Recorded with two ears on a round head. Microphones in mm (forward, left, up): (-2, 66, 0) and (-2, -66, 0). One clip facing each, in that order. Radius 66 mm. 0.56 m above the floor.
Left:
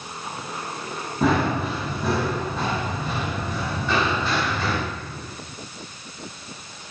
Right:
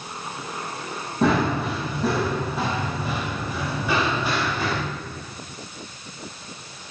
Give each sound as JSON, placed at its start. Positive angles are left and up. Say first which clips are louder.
{"t": 1.2, "sound": "running footsteps", "louder": "even", "side_deg": 0, "distance_m": 9.5}